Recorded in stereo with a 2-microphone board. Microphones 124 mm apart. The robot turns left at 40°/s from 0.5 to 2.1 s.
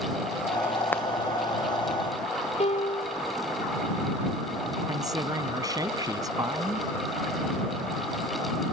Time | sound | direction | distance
0.9 | frying | 15° left (ahead or behind) | ?
2.6 | a piano | 60° left (ahead or behind) | ?
4.9 | a man speaking | 30° right (ahead or behind) | ?